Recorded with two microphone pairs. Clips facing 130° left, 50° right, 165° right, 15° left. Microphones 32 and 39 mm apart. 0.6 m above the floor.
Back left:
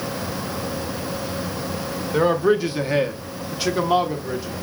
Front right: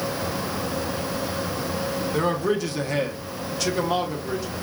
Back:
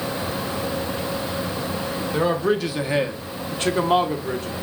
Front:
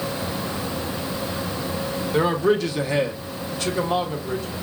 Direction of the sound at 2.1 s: 90° left.